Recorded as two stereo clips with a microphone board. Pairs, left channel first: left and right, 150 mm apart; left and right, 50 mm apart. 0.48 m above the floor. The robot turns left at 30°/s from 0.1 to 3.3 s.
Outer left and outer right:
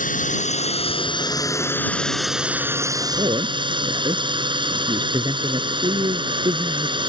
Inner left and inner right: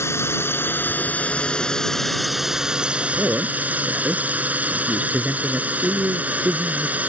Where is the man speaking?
35° right (ahead or behind); by 7.0 s 30° right (ahead or behind).